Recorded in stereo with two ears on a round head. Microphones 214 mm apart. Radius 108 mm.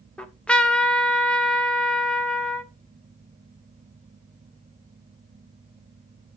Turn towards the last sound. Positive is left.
turn(degrees=5)  # may be behind; listen again after turning